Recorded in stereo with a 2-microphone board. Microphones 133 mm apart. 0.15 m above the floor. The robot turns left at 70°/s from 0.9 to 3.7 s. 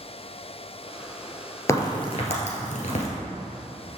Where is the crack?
20° left (ahead or behind), 1.7 m; by 3.1 s 50° left (ahead or behind), 1.7 m.